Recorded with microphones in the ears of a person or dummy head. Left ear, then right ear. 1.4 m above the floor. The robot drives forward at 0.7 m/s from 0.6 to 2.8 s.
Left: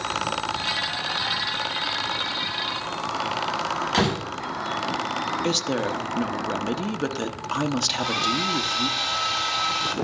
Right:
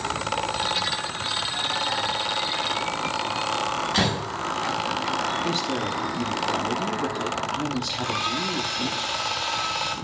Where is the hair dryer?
30° left (ahead or behind), 1.9 m.